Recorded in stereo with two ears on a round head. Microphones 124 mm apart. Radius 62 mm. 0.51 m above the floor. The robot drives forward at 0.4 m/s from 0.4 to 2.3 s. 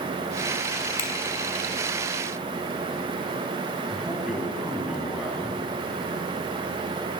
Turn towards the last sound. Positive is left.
turn(degrees=-5)  # may be behind; listen again after turning